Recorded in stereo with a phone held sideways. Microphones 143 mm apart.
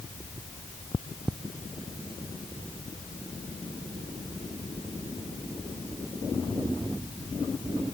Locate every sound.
Only background noise.